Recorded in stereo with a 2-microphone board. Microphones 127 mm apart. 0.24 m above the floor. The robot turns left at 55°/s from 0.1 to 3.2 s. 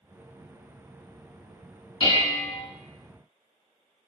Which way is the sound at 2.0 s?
35° left (ahead or behind).